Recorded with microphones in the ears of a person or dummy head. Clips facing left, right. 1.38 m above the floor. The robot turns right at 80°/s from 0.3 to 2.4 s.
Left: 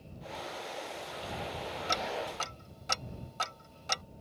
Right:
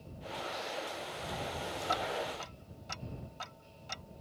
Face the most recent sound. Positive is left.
turn(degrees=70)  # may be behind; listen again after turning